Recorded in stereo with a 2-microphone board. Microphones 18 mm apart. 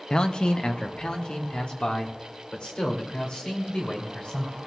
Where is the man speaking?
50° left (ahead or behind), 0.6 m; by 4.6 s 85° left, 4 m.